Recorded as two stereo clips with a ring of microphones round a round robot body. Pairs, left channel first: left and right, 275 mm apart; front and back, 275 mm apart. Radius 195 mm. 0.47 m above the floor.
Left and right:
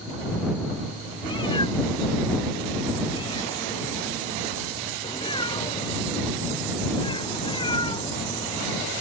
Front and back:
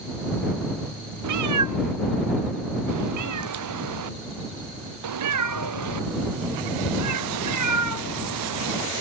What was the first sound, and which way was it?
A cat meowing, 170° left.